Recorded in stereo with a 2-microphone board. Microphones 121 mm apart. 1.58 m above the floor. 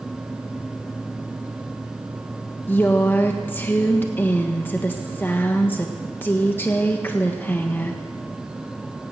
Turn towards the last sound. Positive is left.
turn(degrees=15)  # may be behind; listen again after turning